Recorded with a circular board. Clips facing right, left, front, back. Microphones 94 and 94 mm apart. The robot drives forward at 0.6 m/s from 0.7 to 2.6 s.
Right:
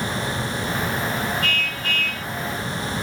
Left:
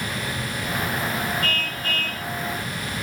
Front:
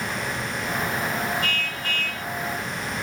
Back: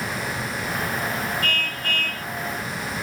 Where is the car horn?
140° left.